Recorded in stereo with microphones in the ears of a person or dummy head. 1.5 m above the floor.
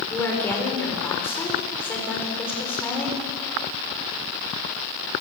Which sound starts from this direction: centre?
A woman speaking, at 0.1 s.